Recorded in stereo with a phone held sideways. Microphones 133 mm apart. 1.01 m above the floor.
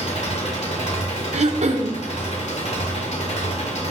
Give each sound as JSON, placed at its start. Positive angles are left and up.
{"t": 0.0, "sound": "an engine running", "side_deg": 55, "distance_m": 1.7}
{"t": 1.3, "sound": "throat clearing", "side_deg": -55, "distance_m": 0.7}